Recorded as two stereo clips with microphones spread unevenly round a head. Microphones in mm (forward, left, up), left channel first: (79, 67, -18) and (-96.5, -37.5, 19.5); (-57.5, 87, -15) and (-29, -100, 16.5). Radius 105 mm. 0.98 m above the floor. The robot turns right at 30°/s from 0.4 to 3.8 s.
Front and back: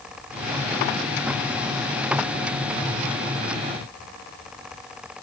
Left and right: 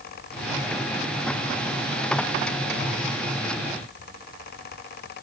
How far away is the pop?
I don't hear a pop.